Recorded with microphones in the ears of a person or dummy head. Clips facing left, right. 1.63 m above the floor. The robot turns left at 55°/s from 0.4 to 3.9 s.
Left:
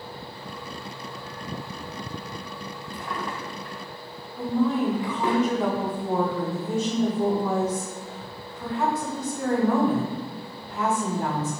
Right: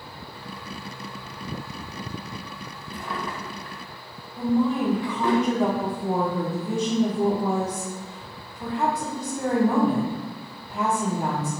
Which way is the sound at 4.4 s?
5° right (ahead or behind).